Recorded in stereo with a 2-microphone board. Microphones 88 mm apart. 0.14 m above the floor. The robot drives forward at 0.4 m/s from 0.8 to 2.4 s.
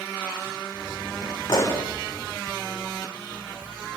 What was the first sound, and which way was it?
A pop, 35° left (ahead or behind).